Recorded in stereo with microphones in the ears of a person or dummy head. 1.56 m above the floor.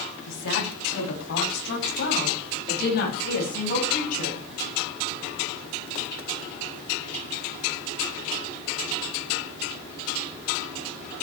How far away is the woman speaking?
About 9 m.